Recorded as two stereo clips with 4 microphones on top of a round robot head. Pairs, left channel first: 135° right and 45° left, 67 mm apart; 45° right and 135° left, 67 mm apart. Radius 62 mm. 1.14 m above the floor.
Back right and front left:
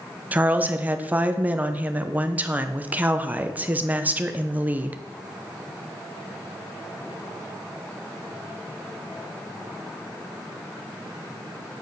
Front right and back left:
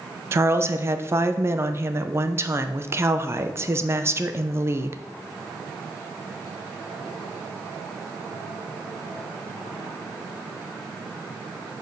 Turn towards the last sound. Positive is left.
turn(degrees=105)